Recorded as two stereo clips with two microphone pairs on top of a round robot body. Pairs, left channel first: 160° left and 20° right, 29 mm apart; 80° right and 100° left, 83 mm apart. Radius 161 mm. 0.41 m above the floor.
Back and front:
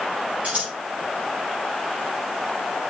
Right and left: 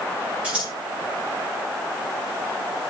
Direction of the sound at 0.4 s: 20° left.